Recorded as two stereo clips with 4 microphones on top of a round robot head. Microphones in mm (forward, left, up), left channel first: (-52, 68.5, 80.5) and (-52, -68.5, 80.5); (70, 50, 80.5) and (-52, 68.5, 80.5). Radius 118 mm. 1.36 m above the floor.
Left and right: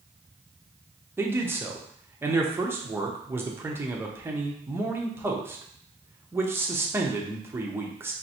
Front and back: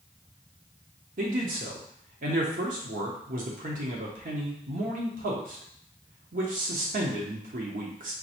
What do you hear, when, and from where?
1.2 s a man speaking: 165° right, 0.9 m